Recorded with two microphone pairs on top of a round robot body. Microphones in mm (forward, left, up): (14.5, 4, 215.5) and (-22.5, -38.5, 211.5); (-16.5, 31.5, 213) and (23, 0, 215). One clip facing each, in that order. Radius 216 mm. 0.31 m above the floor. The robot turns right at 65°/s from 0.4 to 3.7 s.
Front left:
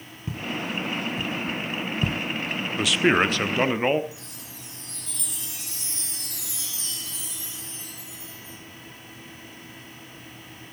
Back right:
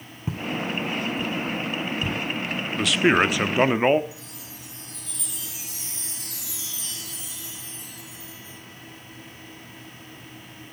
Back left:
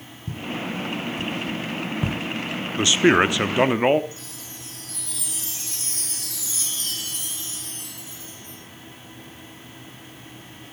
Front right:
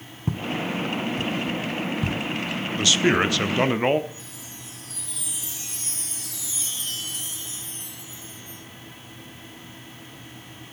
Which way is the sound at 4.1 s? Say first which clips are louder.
Even, back left 1 dB; 145° left.